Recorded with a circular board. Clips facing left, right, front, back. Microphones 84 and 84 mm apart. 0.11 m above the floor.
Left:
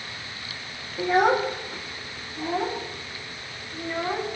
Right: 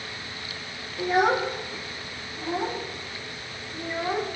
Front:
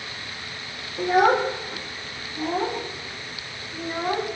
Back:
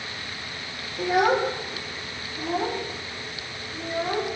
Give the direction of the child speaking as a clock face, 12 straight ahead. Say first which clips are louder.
Left 2 dB, front 2 dB; 10 o'clock.